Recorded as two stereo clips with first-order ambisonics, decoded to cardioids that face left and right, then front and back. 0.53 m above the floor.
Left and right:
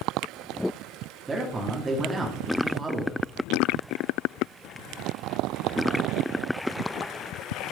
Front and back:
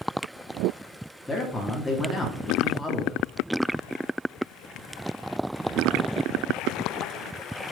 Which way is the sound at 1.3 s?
60° right.